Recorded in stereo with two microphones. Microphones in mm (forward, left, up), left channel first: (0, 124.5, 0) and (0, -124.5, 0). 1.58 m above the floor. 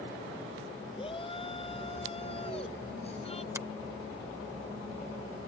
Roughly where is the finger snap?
Centre.